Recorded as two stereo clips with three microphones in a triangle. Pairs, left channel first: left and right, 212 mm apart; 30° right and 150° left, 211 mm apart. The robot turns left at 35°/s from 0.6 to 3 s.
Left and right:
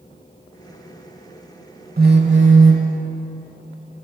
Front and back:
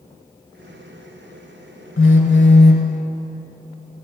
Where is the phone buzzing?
45° right, 0.8 m; by 2.9 s 80° right, 0.8 m.